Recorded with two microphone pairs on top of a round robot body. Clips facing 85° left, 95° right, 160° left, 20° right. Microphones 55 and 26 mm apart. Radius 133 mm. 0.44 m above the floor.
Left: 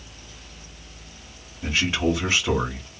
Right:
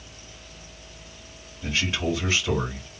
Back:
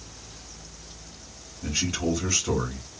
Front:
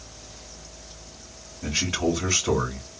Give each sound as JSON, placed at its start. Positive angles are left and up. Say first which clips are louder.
{"t": 1.6, "sound": "a man speaking", "louder": "left 4 dB, front 2 dB", "azimuth_deg": 25, "distance_m": 2.0}